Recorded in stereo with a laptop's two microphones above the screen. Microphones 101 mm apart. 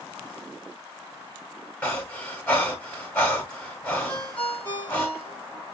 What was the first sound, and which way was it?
Breathing, 15° left (ahead or behind).